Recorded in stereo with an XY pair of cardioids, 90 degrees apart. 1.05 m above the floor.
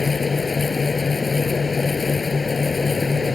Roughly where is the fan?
Ahead left.